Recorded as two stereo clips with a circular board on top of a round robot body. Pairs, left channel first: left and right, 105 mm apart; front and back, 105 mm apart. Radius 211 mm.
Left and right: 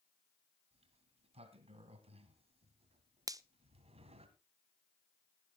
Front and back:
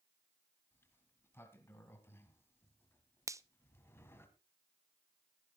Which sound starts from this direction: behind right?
A finger snap, at 3.3 s.